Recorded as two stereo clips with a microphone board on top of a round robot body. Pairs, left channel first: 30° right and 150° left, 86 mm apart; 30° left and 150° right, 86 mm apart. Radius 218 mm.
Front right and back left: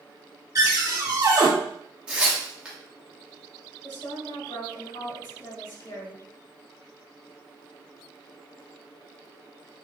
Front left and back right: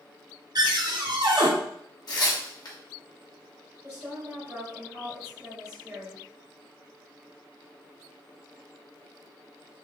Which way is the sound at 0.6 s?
170° right.